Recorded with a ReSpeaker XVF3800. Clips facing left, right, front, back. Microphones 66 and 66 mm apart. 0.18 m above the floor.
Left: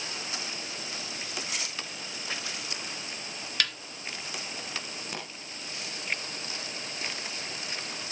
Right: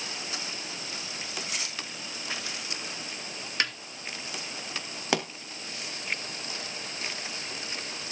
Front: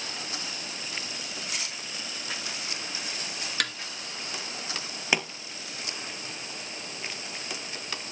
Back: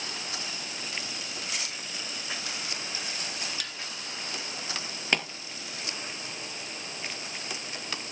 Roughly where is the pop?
Right.